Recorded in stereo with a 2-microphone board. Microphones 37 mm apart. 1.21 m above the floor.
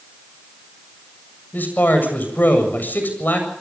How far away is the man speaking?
About 7.5 m.